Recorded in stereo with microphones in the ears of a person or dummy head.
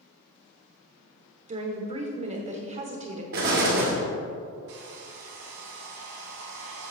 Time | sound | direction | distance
1.5 | a woman speaking | 40° right (ahead or behind) | 1.0 m
3.3 | an explosion | 60° right (ahead or behind) | 1.4 m
4.7 | a hair dryer | 80° right | 1.1 m